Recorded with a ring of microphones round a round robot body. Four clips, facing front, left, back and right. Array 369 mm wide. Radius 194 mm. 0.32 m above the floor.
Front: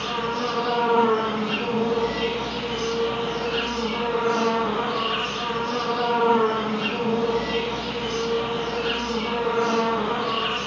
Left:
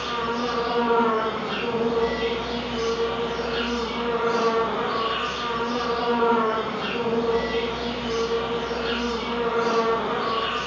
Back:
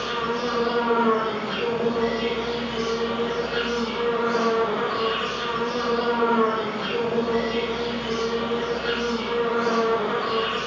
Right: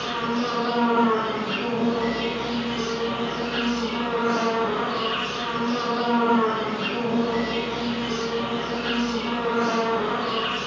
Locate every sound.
0.0 s an insect: 30° right, 1.3 m